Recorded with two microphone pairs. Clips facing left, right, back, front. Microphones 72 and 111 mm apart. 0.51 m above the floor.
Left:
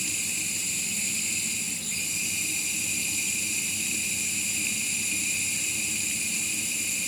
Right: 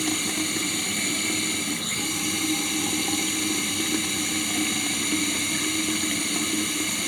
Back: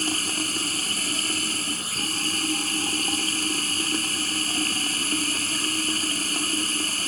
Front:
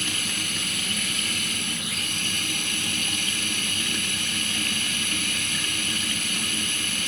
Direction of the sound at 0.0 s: 125° right.